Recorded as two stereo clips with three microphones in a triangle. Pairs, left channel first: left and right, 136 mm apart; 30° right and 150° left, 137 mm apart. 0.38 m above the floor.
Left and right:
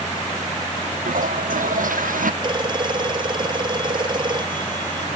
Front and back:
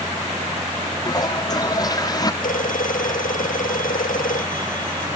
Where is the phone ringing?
35° right.